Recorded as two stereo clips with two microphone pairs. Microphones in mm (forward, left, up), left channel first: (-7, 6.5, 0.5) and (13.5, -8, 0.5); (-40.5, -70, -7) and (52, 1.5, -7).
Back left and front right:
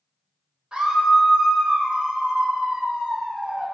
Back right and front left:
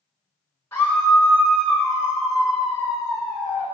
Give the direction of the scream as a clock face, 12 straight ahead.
2 o'clock.